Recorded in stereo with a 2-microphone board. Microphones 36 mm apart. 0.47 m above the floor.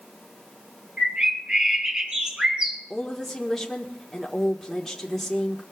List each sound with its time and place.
1.0 s a bird: 30° right (ahead or behind), 3.5 m
2.9 s a woman speaking: 10° left (ahead or behind), 1.2 m